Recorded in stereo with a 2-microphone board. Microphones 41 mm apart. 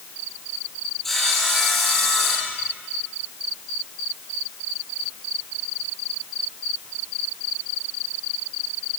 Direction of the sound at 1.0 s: 10° left (ahead or behind).